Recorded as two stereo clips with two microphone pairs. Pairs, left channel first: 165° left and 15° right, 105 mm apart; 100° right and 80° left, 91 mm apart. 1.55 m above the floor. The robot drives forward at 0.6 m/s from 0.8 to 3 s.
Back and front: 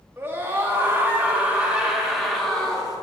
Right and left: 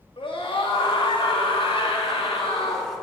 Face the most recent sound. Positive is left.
turn(degrees=-110)